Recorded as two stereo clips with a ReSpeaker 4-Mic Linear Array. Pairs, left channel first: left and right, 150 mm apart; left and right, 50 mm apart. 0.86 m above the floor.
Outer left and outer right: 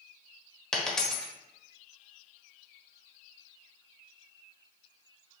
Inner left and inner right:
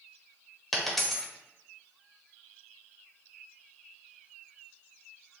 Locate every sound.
0.7 s a dropped coin: 5° left (ahead or behind), 0.6 m